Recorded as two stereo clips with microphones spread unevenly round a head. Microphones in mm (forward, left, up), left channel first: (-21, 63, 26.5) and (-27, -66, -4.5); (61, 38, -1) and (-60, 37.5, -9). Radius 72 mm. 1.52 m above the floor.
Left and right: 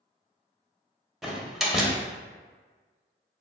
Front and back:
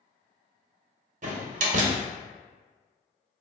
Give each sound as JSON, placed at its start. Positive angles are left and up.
{"t": 1.2, "sound": "a door slam", "azimuth_deg": 170, "distance_m": 0.6}